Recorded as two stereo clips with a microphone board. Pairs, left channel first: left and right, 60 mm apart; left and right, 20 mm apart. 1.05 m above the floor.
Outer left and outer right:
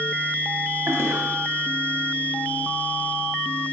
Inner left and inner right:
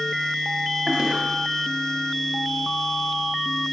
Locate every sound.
0.9 s a toilet flushing: 45° right (ahead or behind), 1.2 m